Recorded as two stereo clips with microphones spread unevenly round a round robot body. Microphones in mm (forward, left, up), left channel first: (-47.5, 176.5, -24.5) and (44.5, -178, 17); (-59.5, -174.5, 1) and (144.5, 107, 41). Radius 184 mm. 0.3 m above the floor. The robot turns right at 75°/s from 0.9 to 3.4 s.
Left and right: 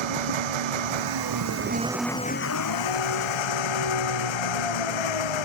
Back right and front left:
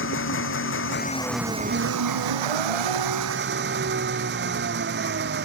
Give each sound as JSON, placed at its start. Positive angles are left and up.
{"t": 0.0, "sound": "an engine running", "azimuth_deg": -70}